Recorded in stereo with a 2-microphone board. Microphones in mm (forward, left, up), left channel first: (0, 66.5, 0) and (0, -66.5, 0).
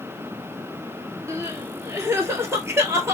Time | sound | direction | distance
1.3 | crying | 20° right (ahead or behind) | 0.8 m